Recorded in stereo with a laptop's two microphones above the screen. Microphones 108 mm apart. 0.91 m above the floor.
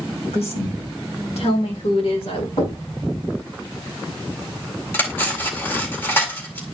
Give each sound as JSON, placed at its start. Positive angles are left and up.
{"t": 0.3, "sound": "a woman speaking", "side_deg": 70, "distance_m": 2.5}
{"t": 2.6, "sound": "knocking", "side_deg": 70, "distance_m": 6.5}
{"t": 4.9, "sound": "cutlery clinking", "side_deg": 20, "distance_m": 1.9}